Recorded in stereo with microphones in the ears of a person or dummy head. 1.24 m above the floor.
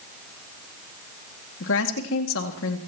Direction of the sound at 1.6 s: 75° left (ahead or behind).